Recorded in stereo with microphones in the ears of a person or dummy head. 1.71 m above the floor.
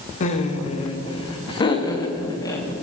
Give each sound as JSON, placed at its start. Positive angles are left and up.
{"t": 0.2, "sound": "laughter", "side_deg": 45, "distance_m": 1.9}